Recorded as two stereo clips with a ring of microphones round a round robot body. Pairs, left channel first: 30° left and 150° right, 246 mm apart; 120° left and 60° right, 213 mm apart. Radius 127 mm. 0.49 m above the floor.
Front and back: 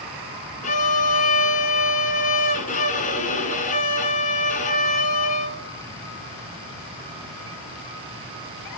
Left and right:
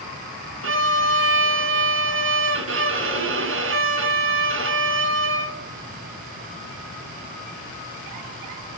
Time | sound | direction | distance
0.6 | a violin | 30° right | 3 m